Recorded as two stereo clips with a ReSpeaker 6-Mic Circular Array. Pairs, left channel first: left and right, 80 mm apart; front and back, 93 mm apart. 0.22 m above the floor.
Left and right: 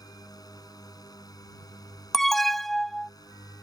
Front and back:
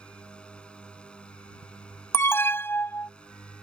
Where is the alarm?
5° left.